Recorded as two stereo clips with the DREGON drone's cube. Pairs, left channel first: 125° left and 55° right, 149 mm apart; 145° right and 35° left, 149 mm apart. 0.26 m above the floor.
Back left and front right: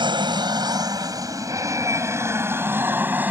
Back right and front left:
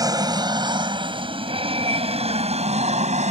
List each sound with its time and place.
0.0 s an aircraft: 15° right; by 3.3 s 20° left